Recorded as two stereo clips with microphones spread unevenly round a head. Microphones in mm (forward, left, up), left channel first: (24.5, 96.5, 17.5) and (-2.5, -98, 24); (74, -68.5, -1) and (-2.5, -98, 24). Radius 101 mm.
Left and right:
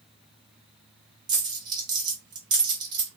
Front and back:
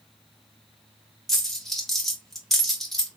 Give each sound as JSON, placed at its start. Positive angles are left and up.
{"t": 1.3, "sound": "a dropped coin", "azimuth_deg": -110, "distance_m": 0.9}